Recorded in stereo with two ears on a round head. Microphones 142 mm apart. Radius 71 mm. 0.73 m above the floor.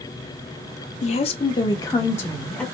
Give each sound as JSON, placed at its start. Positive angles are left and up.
{"t": 1.0, "sound": "a woman speaking", "side_deg": 45, "distance_m": 0.6}